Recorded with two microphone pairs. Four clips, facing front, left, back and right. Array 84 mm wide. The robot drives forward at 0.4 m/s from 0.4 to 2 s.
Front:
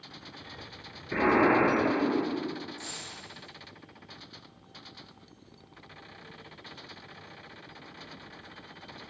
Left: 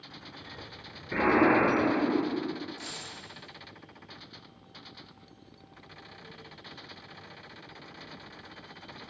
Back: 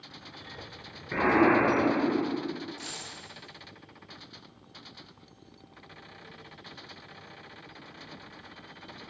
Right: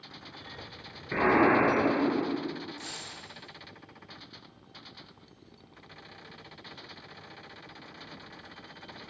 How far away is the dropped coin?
About 1.4 m.